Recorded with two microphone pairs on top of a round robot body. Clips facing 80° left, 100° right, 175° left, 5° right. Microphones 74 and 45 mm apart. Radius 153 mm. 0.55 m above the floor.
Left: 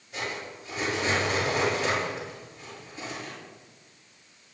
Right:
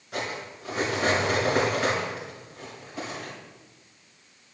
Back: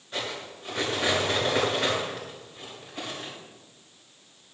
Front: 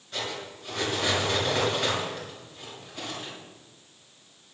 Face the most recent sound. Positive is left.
turn(degrees=-110)